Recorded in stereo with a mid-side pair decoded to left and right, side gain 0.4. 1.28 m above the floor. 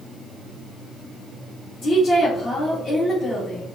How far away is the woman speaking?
About 1.5 m.